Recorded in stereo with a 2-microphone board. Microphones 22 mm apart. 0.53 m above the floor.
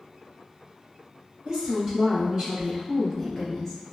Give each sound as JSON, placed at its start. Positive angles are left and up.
{"t": 1.4, "sound": "a woman speaking", "side_deg": -40, "distance_m": 1.9}